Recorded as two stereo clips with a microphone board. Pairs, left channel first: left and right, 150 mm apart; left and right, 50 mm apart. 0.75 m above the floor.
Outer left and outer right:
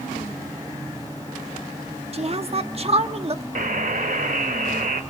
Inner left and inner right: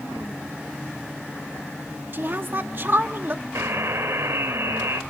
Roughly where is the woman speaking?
Right.